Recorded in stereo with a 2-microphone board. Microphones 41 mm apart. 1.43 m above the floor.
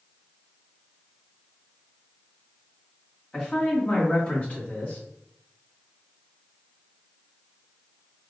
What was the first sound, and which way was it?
A man speaking, 20° left (ahead or behind).